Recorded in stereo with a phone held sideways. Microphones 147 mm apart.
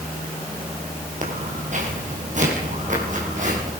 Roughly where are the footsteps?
Right.